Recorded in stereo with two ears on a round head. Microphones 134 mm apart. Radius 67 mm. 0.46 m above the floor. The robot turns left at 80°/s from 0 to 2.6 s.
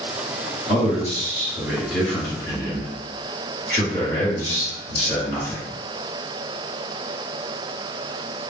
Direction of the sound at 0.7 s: 80° right.